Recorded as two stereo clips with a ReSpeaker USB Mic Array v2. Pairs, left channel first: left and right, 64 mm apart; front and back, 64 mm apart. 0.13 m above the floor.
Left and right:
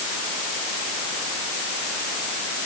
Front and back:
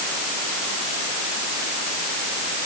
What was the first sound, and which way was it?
Only background noise.